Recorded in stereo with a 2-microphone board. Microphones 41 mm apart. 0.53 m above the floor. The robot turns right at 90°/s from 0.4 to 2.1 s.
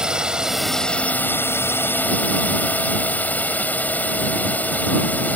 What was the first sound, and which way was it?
A drone, 20° right.